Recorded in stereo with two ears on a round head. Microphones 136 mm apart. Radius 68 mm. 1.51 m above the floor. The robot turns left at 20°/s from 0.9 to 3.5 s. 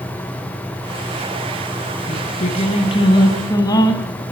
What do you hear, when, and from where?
2.1 s singing: 50° left (ahead or behind), 3.5 m; by 4.2 s 25° left (ahead or behind), 3.5 m